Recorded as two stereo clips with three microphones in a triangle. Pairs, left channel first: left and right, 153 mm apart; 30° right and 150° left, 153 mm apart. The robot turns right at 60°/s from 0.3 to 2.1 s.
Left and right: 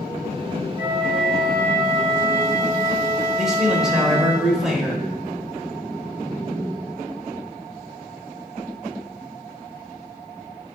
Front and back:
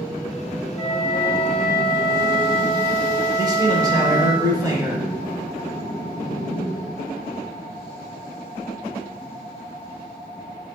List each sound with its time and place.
0.8 s a flute: 25° right, 1.6 m; by 4.3 s 55° left, 1.6 m
3.4 s a man speaking: 175° right, 0.9 m